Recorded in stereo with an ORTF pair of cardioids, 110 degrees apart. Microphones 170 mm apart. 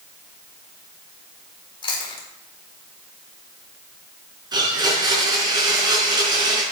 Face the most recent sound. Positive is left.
turn(degrees=-25)